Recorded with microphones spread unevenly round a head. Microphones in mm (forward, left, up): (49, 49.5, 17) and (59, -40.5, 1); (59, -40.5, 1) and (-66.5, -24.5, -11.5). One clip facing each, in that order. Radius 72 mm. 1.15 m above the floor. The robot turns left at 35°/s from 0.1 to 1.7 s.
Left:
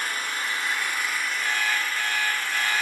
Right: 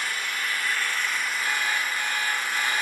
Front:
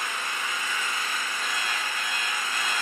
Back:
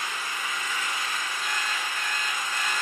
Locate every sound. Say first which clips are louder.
0.0 s an engine running: left 1 dB, front 1 dB; 50° left, 1.7 m; by 2.8 s 5° right, 1.7 m
1.4 s an alarm clock: left 1 dB, even; 85° left, 3 m; by 2.8 s 75° left, 3 m